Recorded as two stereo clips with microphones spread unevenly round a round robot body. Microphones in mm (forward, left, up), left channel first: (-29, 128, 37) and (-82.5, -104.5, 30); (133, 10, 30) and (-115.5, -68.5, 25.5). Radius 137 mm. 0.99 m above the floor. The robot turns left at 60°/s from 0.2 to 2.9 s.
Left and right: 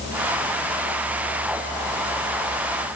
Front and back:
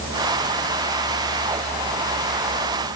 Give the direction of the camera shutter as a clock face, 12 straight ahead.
I don't hear a camera shutter.